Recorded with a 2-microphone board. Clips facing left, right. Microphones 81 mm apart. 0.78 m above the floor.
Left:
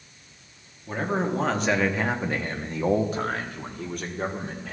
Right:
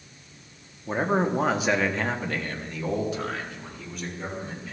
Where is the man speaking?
25° right (ahead or behind), 1.2 m; by 4.7 s 65° left (ahead or behind), 1.9 m.